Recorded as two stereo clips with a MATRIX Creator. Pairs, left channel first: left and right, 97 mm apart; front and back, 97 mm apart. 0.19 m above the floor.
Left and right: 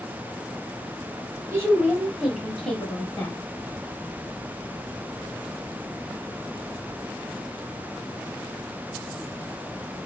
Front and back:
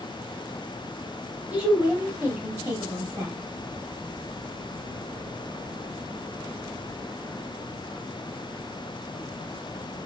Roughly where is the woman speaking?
Behind right.